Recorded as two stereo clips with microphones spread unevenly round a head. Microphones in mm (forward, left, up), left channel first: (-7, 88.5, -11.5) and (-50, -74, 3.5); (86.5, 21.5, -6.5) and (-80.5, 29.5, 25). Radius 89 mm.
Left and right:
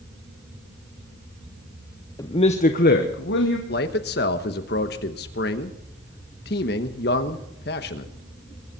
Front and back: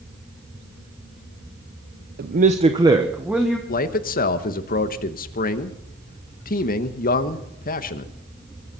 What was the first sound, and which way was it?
A man speaking, 145° left.